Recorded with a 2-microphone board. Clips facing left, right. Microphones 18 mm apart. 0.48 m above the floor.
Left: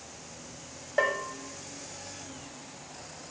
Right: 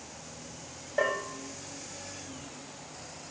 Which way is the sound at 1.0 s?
20° left (ahead or behind).